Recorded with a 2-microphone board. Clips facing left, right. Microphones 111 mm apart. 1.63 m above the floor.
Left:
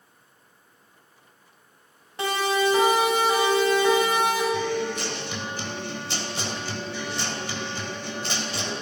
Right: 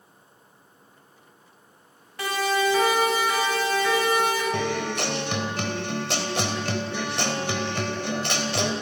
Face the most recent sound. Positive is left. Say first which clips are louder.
# even
turn(degrees=-65)  # may be behind; listen again after turning